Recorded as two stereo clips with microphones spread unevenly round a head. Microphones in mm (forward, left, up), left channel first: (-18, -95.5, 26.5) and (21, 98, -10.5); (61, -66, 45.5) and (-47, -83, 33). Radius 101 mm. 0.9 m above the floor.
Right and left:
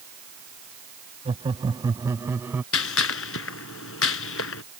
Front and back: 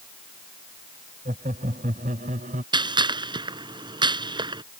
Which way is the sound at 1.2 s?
145° left.